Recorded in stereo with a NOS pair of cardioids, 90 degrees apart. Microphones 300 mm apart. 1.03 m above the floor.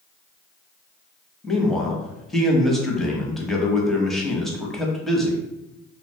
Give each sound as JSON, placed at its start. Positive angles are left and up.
{"t": 1.4, "sound": "a man speaking", "azimuth_deg": 0, "distance_m": 0.8}